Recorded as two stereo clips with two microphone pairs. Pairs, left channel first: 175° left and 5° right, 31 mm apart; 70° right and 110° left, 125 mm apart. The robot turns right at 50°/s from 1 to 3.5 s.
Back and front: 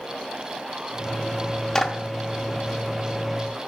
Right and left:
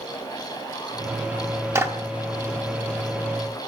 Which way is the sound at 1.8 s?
130° left.